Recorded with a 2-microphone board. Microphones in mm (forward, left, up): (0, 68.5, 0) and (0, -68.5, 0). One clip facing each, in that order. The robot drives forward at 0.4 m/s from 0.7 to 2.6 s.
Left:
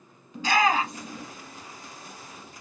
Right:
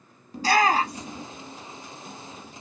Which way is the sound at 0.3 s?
40° right (ahead or behind).